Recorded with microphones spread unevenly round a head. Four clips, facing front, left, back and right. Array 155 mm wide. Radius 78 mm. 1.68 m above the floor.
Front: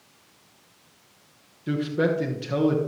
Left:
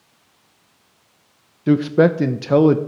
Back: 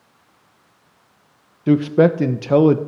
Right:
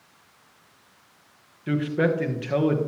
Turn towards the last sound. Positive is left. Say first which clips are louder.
# left 9 dB, back 10 dB
turn(degrees=130)